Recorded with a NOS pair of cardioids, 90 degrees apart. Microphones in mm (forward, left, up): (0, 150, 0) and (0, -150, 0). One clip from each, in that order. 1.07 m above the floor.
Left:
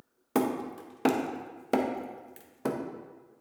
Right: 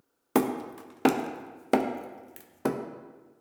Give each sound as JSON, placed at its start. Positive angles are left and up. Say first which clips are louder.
{"t": 0.3, "sound": "hammering", "louder": "right 2 dB", "azimuth_deg": -20, "distance_m": 0.6}